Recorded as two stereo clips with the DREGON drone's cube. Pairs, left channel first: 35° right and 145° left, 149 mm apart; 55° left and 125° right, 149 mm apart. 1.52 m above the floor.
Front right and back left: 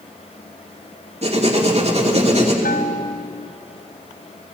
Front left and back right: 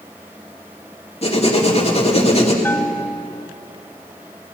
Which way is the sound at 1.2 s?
100° left.